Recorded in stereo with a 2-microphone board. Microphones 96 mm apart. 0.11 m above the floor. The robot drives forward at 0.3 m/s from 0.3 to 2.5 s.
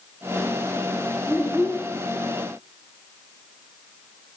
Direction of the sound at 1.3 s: 15° right (ahead or behind).